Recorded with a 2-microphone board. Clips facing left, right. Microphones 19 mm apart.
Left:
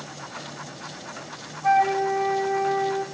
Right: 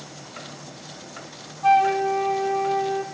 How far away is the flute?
About 4 m.